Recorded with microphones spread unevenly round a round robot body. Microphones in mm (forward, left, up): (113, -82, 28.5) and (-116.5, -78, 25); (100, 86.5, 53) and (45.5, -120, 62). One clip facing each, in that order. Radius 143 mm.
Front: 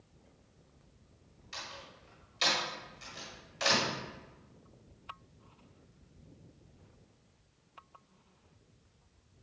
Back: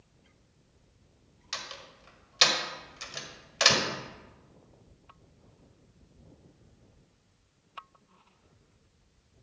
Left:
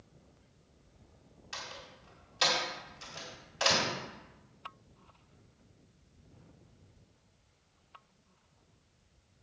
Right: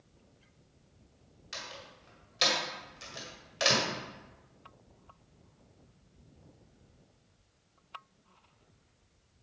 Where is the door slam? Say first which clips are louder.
Back 3 dB, right 1 dB; straight behind, 1.8 m.